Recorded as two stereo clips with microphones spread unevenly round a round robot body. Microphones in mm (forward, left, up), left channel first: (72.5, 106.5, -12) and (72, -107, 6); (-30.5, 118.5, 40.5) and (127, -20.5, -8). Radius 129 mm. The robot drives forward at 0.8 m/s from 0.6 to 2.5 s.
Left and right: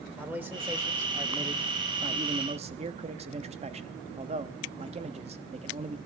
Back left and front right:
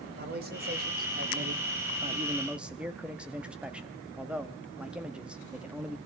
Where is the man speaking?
5° right, 1.7 m; by 6.0 s 75° right, 0.5 m.